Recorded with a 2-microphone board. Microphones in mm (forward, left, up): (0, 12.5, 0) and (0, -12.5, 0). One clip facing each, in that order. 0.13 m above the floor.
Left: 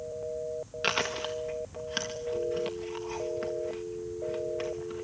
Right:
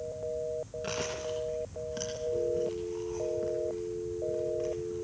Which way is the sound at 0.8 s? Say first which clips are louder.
Left 8 dB; 65° left (ahead or behind).